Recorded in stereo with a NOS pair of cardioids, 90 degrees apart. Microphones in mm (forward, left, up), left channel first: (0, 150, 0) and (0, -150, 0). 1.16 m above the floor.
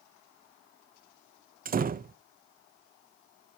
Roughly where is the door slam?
Ahead right.